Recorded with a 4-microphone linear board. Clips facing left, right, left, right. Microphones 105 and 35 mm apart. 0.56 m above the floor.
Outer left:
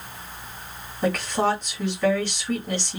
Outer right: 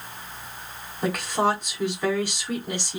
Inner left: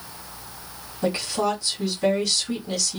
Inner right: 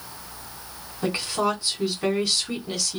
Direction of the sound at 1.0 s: 15° right (ahead or behind).